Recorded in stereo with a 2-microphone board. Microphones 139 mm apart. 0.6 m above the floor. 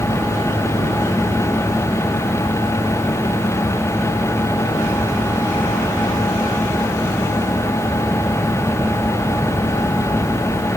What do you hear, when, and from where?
Only background noise.